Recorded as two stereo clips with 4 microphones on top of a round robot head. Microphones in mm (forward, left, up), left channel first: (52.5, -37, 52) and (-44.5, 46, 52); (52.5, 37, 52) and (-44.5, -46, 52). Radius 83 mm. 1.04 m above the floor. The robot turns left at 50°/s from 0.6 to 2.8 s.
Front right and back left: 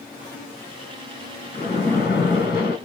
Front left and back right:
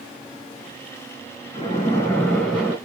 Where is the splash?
5° right, 2.5 m; by 2.8 s 65° right, 2.5 m.